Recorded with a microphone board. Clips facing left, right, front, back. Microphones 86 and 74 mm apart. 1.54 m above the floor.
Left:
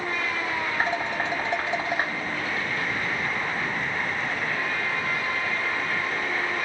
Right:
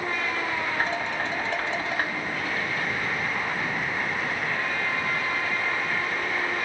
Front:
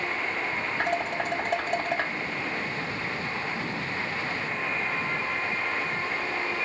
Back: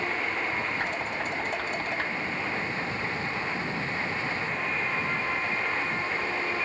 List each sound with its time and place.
0.8 s dishes clattering: 20° left, 2.0 m